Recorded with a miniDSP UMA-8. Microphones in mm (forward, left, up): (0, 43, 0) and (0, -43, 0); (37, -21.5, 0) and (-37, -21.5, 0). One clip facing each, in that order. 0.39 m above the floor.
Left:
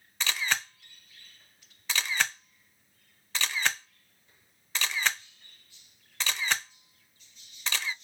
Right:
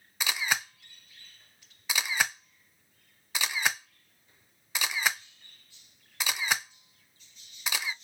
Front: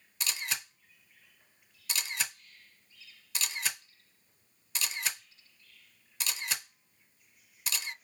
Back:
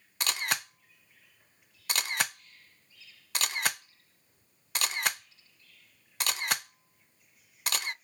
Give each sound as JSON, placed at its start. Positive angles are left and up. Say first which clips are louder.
{"t": 0.2, "sound": "a camera shutter", "louder": "even, back 6 dB", "azimuth_deg": -165, "distance_m": 0.5}